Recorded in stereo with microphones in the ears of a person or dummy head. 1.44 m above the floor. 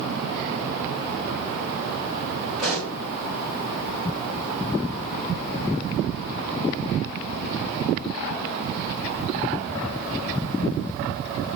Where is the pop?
Centre (ahead or behind), 1.8 m.